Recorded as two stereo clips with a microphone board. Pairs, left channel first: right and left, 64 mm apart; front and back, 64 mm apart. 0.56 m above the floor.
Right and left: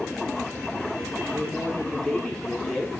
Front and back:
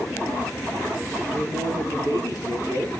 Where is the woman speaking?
15° right, 4 m.